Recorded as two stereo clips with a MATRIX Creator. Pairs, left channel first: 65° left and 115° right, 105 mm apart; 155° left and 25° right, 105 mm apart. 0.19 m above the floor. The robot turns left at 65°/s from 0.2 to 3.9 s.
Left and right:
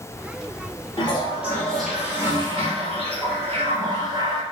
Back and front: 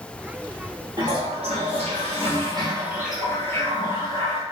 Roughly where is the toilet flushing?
Ahead left.